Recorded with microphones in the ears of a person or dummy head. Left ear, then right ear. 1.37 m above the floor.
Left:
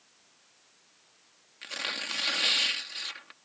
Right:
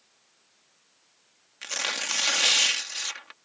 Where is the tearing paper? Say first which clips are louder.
Right 4 dB; 30° right (ahead or behind).